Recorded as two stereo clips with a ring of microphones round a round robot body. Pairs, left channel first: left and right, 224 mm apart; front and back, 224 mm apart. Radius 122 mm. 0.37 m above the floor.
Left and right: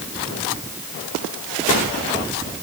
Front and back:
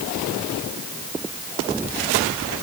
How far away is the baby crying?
I don't hear a baby crying.